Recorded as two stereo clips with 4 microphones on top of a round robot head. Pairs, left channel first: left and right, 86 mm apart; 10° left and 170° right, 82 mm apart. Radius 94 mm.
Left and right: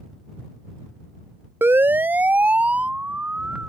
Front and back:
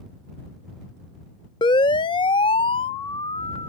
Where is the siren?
25° right; by 3.7 s 15° right.